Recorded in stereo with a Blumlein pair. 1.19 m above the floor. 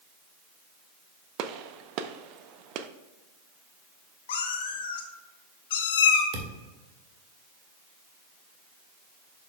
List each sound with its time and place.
1.4 s a gunshot: 40° right, 0.6 m
4.3 s a cat meowing: 55° left, 1.2 m
6.3 s a thud: 40° right, 1.6 m